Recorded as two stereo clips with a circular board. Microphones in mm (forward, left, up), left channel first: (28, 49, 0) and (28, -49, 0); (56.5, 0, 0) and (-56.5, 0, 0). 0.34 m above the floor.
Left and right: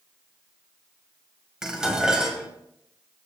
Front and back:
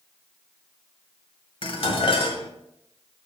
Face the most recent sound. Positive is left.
turn(degrees=-10)